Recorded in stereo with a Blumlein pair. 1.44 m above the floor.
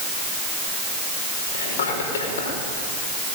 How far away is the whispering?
About 5.5 m.